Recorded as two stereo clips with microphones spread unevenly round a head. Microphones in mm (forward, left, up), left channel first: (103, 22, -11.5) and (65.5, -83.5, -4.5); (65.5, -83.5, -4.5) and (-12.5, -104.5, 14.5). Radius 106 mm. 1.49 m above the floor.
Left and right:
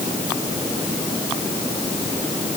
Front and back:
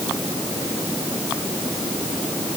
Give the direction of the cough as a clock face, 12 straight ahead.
No cough in this recording.